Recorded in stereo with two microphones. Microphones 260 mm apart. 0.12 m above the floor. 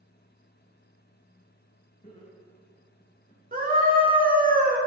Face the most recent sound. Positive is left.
turn(degrees=-35)  # may be behind; listen again after turning